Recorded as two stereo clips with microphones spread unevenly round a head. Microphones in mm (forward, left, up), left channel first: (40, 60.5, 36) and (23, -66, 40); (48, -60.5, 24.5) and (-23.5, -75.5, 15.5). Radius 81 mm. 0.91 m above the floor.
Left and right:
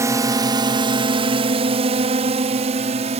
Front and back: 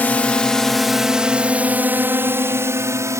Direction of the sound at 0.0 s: 45° right.